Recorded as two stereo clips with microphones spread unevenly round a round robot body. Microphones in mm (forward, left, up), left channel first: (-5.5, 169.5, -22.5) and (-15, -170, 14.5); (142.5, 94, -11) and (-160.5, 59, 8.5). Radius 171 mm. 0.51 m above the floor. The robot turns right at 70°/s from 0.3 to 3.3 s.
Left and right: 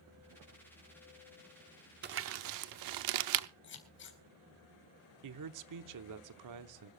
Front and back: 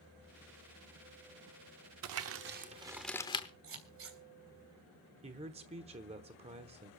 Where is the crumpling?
150° right, 0.6 m; by 3.5 s 65° right, 0.6 m.